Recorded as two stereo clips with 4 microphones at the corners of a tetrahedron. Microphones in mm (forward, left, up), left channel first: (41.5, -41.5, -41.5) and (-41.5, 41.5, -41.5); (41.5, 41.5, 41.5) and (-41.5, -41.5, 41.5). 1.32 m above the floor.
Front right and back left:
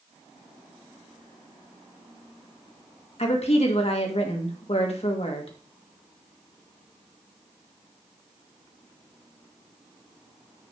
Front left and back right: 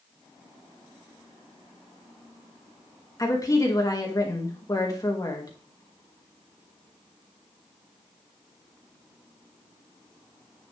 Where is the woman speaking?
15° right, 2.5 m.